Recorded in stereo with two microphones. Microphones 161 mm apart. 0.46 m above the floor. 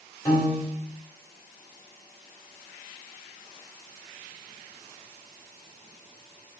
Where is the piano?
20° left (ahead or behind), 2.5 m.